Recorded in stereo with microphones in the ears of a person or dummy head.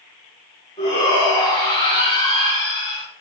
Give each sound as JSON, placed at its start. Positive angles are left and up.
{"t": 0.8, "sound": "a shout", "side_deg": 30, "distance_m": 1.2}